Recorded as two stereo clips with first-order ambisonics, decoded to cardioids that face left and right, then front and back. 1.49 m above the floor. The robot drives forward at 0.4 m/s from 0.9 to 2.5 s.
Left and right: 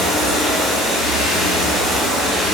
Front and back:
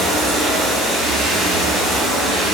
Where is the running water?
115° left, 1.5 m; by 2.5 s 140° left, 1.8 m.